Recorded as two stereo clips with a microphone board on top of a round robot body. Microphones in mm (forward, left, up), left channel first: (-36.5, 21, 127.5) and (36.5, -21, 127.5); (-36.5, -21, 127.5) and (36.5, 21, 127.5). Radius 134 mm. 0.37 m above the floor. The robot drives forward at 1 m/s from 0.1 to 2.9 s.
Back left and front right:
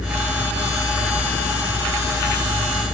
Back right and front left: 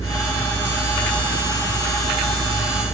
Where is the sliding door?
110° right.